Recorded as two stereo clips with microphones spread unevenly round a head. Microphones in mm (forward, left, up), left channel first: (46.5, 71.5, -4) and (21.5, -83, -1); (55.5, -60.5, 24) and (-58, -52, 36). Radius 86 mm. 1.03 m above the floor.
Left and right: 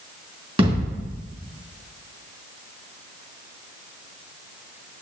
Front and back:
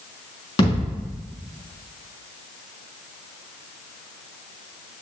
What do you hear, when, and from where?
0.6 s a thud: 50° right, 3.5 m